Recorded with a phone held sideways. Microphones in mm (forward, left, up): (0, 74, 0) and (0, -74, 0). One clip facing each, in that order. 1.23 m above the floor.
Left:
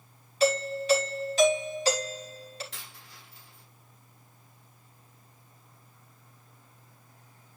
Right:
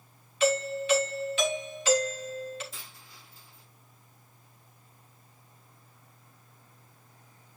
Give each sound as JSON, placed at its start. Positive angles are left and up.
{"t": 0.4, "sound": "a doorbell", "side_deg": 35, "distance_m": 3.0}
{"t": 2.7, "sound": "a dropped coin", "side_deg": 80, "distance_m": 5.0}